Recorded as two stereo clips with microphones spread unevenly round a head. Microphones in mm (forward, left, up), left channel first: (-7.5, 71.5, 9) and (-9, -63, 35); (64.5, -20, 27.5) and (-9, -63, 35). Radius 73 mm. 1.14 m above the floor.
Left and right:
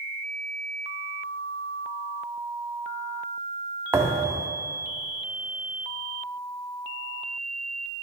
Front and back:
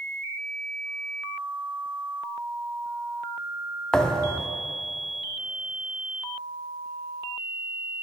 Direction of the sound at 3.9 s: 55° right.